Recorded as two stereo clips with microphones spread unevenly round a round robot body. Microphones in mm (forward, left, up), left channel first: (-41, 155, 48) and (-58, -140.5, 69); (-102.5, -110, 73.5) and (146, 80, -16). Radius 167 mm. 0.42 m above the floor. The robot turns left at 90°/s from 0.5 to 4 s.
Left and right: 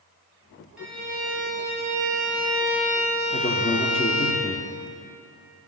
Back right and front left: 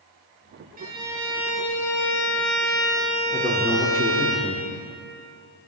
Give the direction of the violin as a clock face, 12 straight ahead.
12 o'clock.